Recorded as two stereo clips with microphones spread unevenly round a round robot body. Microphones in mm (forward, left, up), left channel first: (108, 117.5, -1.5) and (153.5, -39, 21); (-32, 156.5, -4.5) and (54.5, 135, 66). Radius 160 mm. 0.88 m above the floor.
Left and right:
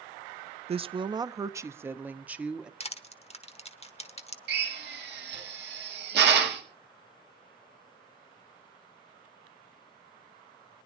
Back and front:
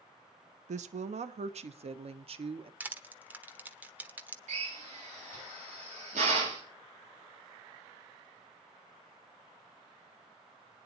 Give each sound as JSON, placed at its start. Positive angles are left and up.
{"t": 0.7, "sound": "a woman speaking", "azimuth_deg": -15, "distance_m": 0.7}
{"t": 2.8, "sound": "crushing", "azimuth_deg": 50, "distance_m": 1.3}
{"t": 4.5, "sound": "a drill", "azimuth_deg": -70, "distance_m": 2.0}